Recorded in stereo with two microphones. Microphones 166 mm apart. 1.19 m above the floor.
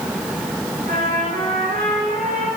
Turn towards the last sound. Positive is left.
turn(degrees=-75)  # may be behind; listen again after turning